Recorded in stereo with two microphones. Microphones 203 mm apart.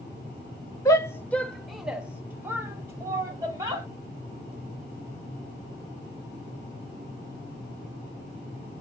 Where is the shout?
15° left (ahead or behind), 0.6 m; by 3.9 s 15° right (ahead or behind), 1.5 m.